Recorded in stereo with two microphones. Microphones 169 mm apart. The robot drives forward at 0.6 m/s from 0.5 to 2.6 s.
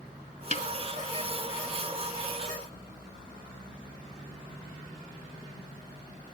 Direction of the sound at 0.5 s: 45° left (ahead or behind).